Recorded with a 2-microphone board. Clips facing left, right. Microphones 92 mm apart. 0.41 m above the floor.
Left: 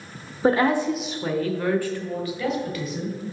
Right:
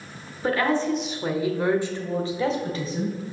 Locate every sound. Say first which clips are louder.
0.4 s a woman speaking: left 3 dB; 30° left (ahead or behind), 0.8 m; by 3.2 s 35° right (ahead or behind), 2.5 m